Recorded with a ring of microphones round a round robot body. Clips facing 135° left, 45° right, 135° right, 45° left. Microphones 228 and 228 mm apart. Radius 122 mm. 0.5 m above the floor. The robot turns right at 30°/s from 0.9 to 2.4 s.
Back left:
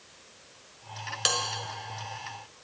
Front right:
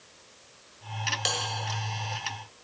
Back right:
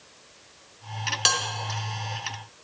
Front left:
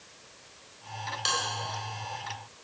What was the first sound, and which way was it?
A bell, 145° right.